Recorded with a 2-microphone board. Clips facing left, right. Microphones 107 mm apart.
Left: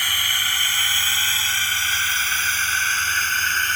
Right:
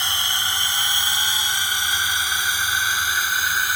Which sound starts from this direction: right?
A drone, at 0.0 s.